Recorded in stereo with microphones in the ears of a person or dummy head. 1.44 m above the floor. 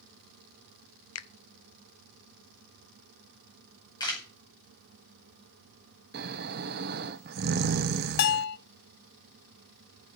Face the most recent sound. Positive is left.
turn(degrees=55)  # may be behind; listen again after turning